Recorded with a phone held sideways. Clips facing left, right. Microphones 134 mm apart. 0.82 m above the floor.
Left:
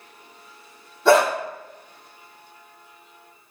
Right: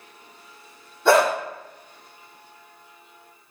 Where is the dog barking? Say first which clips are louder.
Left 1 dB; centre (ahead or behind), 2.5 m.